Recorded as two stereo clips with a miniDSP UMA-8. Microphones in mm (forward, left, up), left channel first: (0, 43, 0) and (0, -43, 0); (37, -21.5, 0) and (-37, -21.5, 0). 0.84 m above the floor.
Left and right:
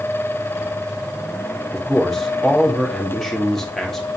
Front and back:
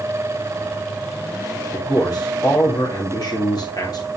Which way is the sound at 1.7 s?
5° left.